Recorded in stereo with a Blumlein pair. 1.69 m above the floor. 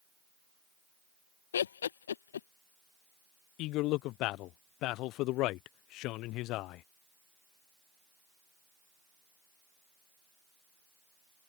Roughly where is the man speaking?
Ahead left.